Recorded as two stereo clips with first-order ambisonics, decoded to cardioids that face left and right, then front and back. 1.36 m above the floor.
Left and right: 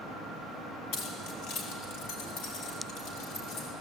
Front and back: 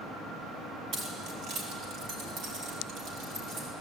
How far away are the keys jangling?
About 5.5 m.